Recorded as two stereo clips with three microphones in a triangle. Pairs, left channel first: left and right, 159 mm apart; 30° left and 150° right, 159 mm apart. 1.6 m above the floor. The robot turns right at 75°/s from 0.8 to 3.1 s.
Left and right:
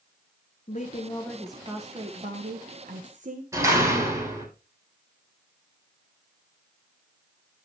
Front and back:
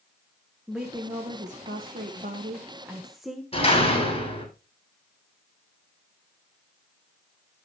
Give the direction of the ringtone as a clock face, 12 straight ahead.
I don't hear a ringtone.